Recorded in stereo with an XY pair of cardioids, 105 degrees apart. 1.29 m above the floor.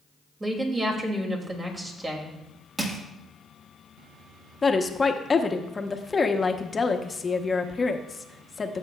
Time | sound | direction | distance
0.4 | a woman speaking | 30° right | 2.5 m
2.8 | crushing | 35° right | 1.7 m
4.6 | a woman speaking | 25° left | 0.9 m